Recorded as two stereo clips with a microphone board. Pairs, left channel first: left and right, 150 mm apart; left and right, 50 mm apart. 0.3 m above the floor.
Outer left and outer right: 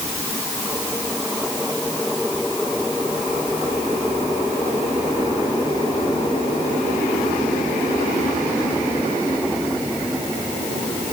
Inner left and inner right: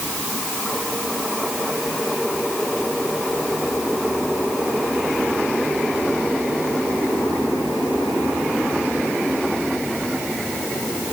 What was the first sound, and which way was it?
Only background noise.